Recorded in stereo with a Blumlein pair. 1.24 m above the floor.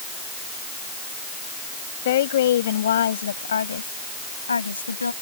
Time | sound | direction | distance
2.0 | a woman speaking | 55° left | ?